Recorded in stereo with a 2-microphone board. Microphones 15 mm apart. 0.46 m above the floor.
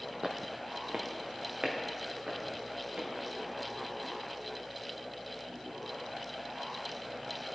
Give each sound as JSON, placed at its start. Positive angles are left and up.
{"t": 0.2, "sound": "footsteps", "side_deg": -35, "distance_m": 0.9}